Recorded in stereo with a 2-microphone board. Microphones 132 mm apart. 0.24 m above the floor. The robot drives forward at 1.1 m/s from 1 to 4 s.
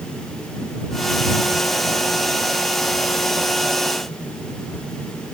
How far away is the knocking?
No knocking in this recording.